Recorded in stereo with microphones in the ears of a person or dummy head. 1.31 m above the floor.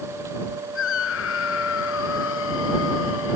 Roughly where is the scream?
Left.